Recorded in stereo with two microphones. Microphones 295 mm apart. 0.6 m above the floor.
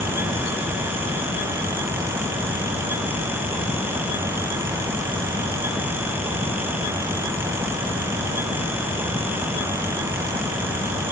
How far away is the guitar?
No guitar in this recording.